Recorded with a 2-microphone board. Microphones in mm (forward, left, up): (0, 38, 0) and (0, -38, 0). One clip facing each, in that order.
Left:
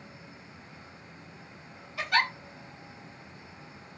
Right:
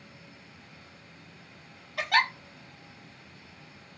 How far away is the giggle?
About 0.8 m.